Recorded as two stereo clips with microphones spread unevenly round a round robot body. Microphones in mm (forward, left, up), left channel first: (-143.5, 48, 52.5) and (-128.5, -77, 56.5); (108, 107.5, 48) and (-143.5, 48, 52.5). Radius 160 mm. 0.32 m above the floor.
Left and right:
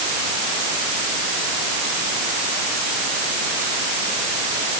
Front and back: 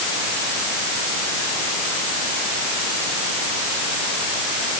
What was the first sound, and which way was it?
Only background noise.